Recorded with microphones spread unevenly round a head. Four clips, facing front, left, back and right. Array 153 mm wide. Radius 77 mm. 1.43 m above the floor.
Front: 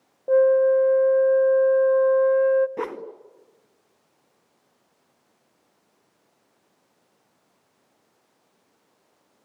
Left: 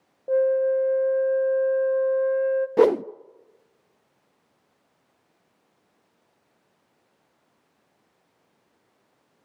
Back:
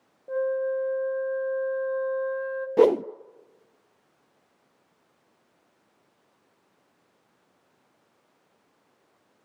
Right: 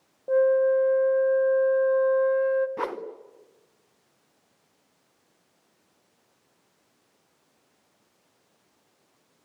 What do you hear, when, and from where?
0.3 s a flute: 15° left, 0.7 m
2.8 s a whoosh: 115° left, 0.5 m